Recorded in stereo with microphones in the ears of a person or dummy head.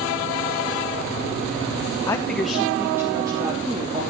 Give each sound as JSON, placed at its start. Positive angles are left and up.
{"t": 2.1, "sound": "a man speaking", "side_deg": 15, "distance_m": 1.0}